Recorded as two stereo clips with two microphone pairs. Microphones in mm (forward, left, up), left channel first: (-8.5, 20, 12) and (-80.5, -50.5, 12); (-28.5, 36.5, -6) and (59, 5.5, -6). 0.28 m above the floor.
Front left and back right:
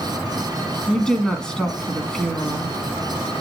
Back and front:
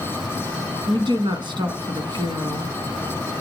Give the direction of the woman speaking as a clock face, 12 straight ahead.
1 o'clock.